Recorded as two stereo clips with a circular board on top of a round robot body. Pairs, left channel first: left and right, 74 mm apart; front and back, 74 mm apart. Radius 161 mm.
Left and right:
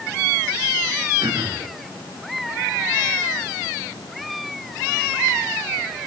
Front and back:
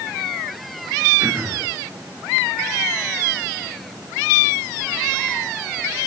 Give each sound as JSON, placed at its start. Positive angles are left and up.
{"t": 1.2, "sound": "throat clearing", "azimuth_deg": -120, "distance_m": 5.0}